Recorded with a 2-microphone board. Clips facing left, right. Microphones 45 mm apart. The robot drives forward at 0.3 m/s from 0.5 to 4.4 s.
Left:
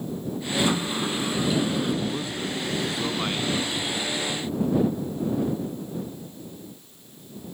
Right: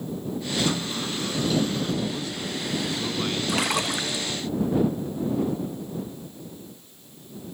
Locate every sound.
0.6 s a sliding door: 20° left (ahead or behind); by 1.9 s 15° left (ahead or behind)
2.0 s a man speaking: 20° left (ahead or behind)
3.5 s a splash: 80° right